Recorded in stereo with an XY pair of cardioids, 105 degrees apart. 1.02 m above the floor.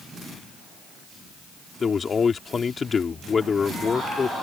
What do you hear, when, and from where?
1.8 s a man speaking: 35° left